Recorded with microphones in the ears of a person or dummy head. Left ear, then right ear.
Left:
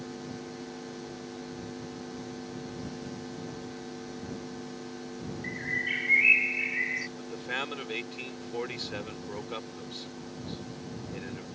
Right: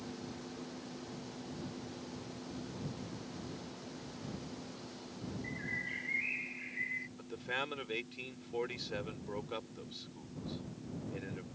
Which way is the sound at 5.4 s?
65° left (ahead or behind).